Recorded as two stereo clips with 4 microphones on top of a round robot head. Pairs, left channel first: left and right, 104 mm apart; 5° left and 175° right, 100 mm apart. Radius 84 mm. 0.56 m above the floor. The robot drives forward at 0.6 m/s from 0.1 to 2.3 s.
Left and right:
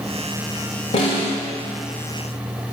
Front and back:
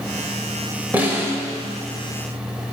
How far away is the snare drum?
About 2.5 m.